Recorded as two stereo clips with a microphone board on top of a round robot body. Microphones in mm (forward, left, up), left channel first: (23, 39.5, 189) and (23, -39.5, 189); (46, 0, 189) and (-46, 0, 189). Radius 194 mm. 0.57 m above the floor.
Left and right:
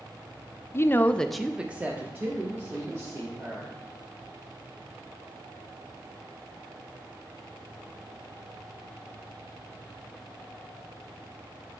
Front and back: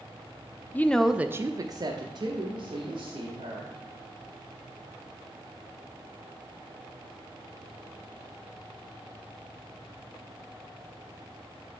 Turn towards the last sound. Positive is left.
turn(degrees=-145)